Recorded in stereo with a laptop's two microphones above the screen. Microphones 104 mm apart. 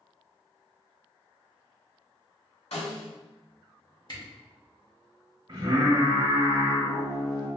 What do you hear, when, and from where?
2.7 s a snare drum: 75° left (ahead or behind), 1.9 m
4.1 s a camera shutter: 45° left (ahead or behind), 1.9 m
5.5 s singing: 45° right (ahead or behind), 1.5 m